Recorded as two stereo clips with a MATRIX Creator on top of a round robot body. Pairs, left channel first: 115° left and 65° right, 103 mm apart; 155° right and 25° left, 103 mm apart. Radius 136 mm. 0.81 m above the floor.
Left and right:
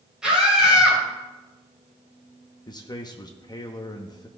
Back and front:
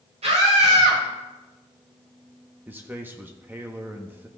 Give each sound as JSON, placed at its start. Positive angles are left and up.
{"t": 0.2, "sound": "a scream", "azimuth_deg": 15, "distance_m": 4.5}
{"t": 2.7, "sound": "a man speaking", "azimuth_deg": 85, "distance_m": 1.0}